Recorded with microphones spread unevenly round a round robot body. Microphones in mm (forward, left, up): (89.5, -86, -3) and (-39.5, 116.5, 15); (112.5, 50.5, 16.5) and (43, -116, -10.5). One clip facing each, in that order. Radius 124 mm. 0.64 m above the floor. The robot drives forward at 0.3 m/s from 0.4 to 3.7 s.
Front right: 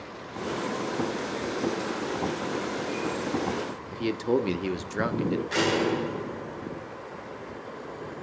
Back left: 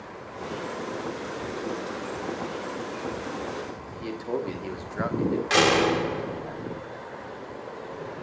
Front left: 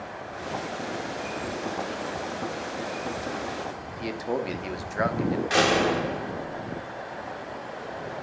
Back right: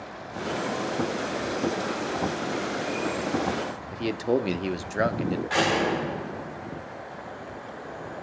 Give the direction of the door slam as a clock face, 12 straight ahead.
8 o'clock.